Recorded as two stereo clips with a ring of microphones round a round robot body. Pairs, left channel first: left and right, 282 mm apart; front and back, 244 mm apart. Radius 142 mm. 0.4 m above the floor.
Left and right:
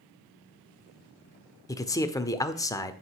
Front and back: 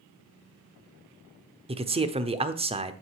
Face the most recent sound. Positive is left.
turn(degrees=155)